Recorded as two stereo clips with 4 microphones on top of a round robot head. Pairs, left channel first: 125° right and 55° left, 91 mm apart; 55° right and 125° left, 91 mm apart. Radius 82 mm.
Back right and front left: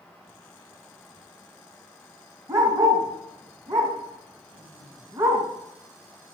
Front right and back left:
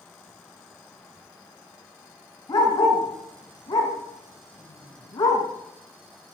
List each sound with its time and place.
2.5 s a dog barking: straight ahead, 3 m